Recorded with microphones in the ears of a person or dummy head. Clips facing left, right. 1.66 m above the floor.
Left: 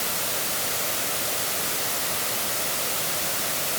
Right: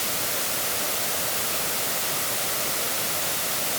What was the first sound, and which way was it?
Only background noise.